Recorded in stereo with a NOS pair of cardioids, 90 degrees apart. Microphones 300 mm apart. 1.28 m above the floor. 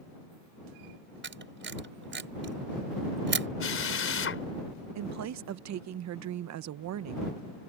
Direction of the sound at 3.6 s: 45° left.